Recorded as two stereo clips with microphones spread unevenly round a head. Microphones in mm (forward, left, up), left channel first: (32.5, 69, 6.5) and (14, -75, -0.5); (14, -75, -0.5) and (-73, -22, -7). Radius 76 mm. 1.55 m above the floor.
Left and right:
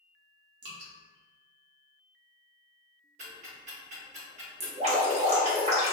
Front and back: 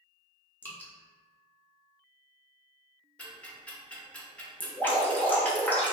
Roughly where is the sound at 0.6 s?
Right.